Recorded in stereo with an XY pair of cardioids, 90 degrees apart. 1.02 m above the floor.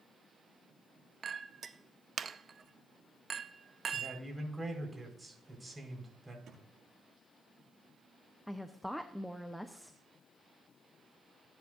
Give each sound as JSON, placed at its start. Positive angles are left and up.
{"t": 1.2, "sound": "a clink", "azimuth_deg": -45, "distance_m": 0.6}
{"t": 3.9, "sound": "a man speaking", "azimuth_deg": -15, "distance_m": 5.0}
{"t": 6.5, "sound": "a thud", "azimuth_deg": -70, "distance_m": 6.0}
{"t": 8.5, "sound": "a woman speaking", "azimuth_deg": 5, "distance_m": 0.9}